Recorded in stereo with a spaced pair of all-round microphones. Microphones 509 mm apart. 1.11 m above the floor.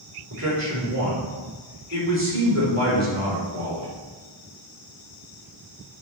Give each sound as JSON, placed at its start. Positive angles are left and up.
{"t": 0.3, "sound": "a man speaking", "side_deg": -30, "distance_m": 3.5}